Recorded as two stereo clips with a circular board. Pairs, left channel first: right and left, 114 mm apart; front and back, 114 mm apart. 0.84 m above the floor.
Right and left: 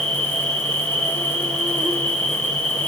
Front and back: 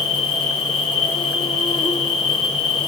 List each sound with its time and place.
0.0 s an insect: 5° right, 1.7 m